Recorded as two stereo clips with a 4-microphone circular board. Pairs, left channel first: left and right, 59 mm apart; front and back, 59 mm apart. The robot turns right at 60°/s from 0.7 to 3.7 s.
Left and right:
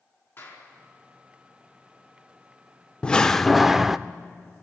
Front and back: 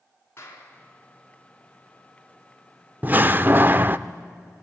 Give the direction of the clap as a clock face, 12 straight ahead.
11 o'clock.